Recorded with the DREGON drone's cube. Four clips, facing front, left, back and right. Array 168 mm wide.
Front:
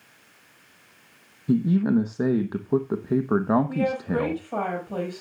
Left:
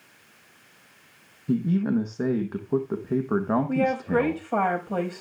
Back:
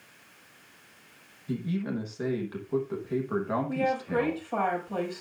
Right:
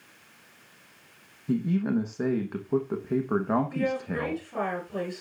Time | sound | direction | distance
1.5 | a man speaking | 10° left | 1.1 m
3.7 | a woman speaking | 80° left | 5.5 m